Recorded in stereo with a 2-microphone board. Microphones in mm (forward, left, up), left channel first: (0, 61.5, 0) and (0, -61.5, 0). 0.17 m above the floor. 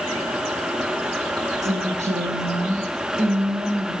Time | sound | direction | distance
1.6 | a woman speaking | 70° right (ahead or behind) | 4.5 m